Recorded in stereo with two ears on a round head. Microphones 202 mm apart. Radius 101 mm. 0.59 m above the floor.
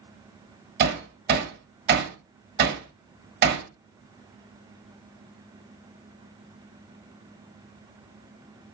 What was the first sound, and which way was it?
Hammering, 40° right (ahead or behind).